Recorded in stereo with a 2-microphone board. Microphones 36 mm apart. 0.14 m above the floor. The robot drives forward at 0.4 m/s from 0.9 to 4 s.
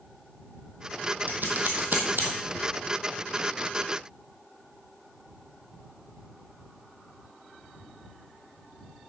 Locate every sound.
1.3 s scissors: 60° right (ahead or behind), 2 m; by 2.3 s 65° right (ahead or behind), 1.9 m